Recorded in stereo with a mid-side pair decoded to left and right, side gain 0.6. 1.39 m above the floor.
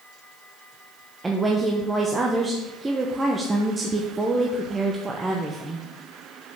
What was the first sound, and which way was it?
A woman speaking, 20° right.